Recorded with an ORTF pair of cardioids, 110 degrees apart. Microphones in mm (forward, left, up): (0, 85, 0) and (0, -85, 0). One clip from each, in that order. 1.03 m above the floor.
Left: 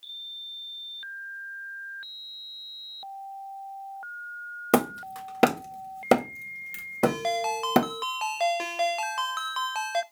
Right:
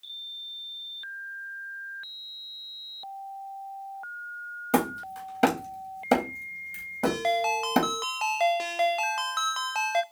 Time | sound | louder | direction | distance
4.7 | hammering | left 2 dB | 50° left | 1.5 m
7.0 | a ringtone | right 2 dB | straight ahead | 0.6 m